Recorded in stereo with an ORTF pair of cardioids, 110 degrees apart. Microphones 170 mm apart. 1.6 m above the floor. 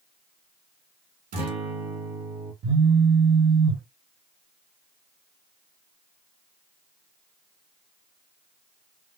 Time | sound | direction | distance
1.3 | a guitar | 60° right | 2.5 m
2.6 | a phone buzzing | 65° right | 1.4 m